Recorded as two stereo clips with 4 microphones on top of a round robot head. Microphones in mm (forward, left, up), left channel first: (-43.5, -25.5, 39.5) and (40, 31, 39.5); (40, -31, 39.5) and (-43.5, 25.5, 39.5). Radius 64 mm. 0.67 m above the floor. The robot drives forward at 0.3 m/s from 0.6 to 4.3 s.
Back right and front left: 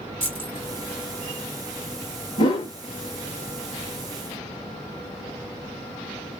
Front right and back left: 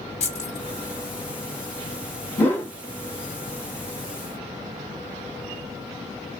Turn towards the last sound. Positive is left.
turn(degrees=-125)